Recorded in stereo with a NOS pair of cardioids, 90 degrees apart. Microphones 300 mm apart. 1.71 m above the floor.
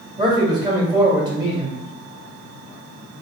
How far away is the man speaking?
About 1.4 m.